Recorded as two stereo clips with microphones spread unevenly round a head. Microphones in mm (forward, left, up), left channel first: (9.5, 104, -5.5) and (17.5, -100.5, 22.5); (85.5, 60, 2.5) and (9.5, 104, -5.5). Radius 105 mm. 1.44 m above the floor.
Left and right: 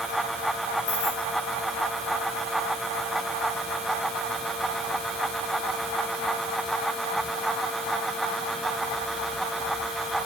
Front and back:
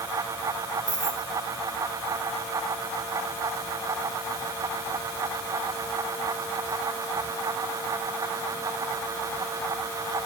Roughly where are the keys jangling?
Left.